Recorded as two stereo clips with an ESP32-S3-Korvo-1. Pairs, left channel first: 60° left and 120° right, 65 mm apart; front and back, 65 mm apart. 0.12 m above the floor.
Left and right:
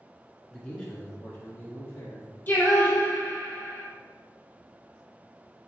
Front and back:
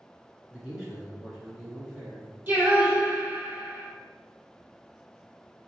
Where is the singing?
120° left, 1.6 m.